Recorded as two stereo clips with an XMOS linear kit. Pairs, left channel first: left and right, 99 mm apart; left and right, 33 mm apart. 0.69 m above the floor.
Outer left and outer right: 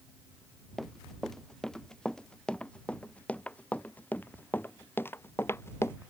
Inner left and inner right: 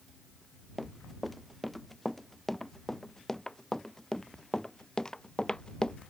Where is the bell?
No bell in this recording.